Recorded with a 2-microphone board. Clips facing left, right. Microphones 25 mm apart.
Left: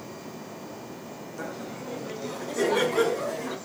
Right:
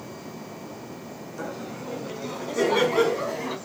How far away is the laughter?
About 5.5 m.